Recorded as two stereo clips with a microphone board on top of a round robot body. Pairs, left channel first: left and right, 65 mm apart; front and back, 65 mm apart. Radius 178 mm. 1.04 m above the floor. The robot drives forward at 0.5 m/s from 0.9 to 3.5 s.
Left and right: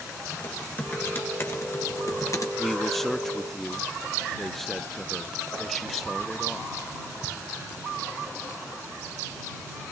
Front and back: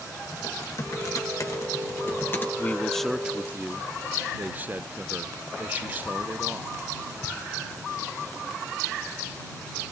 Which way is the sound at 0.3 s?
35° left.